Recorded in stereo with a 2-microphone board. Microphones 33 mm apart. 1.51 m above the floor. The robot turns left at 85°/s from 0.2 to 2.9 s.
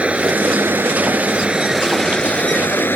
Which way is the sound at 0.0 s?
40° right.